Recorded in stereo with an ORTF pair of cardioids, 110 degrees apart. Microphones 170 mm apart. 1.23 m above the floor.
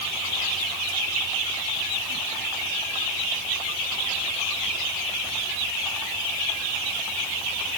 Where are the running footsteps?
I don't hear running footsteps.